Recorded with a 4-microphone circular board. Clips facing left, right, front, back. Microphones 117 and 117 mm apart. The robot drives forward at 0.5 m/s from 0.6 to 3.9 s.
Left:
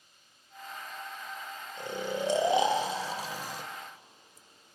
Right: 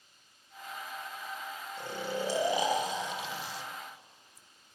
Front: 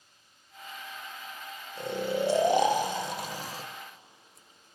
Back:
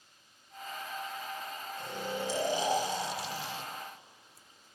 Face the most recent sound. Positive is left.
turn(degrees=65)